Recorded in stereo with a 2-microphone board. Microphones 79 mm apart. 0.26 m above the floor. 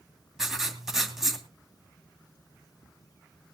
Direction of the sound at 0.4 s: 5° right (ahead or behind).